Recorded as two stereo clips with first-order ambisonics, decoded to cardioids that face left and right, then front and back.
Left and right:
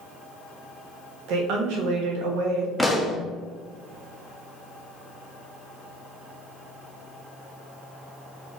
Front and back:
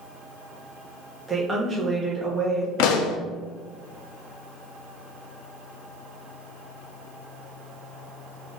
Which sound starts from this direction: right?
A woman speaking, at 1.3 s.